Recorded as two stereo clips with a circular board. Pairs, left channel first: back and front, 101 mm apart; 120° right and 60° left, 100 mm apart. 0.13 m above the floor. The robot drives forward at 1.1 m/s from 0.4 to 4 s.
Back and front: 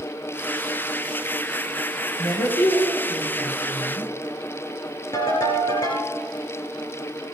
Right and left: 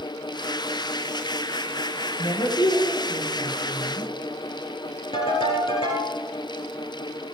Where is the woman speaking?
150° right, 3.5 m; by 4.1 s 160° right, 5.5 m.